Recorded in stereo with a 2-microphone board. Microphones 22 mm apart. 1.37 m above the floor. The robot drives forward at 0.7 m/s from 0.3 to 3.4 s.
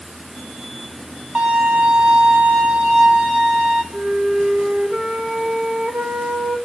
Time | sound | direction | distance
1.4 | a violin | 55° right (ahead or behind) | 1.0 m
3.9 | a flute | 65° right (ahead or behind) | 1.5 m